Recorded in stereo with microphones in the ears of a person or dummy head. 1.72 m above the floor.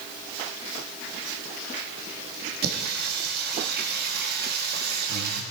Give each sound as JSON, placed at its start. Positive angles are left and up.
{"t": 2.6, "sound": "singing", "side_deg": -65, "distance_m": 3.0}